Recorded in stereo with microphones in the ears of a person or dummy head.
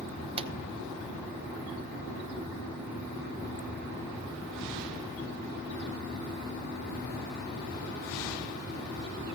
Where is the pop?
35° right (ahead or behind), 0.8 m.